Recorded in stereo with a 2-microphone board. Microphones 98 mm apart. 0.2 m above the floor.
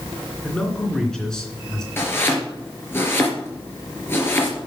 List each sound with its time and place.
0.4 s a man speaking: 5° left (ahead or behind), 3 m
2.0 s chopping: 25° left (ahead or behind), 3 m